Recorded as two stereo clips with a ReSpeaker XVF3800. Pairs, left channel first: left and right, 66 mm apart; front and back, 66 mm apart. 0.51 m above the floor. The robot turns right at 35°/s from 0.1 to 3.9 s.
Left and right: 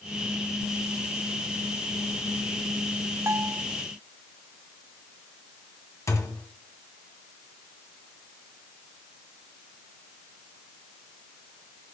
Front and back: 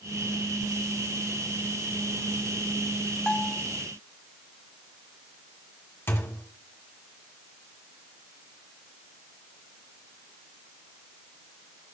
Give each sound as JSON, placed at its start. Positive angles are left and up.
{"t": 3.3, "sound": "a bell", "azimuth_deg": -70, "distance_m": 1.1}
{"t": 6.1, "sound": "a thud", "azimuth_deg": 50, "distance_m": 1.7}